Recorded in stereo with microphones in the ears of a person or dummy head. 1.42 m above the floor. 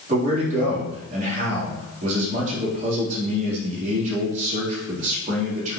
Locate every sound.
0.1 s a man speaking: 45° right (ahead or behind), 3.5 m